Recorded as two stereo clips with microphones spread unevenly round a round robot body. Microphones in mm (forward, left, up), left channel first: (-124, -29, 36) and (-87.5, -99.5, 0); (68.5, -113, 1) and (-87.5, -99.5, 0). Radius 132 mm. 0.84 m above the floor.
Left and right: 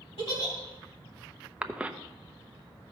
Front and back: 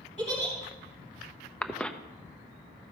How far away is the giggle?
About 3 m.